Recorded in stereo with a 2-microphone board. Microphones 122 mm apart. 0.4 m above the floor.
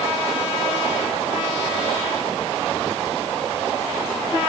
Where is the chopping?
No chopping in this recording.